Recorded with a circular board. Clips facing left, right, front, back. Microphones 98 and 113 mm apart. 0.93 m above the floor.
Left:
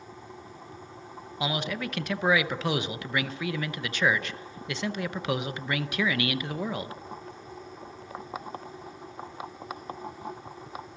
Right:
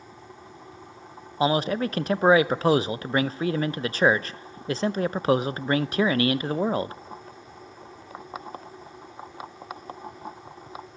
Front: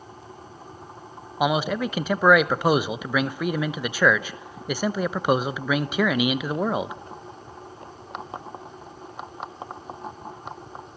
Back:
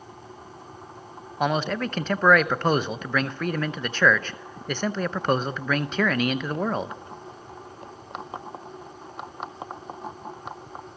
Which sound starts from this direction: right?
A man speaking, at 1.4 s.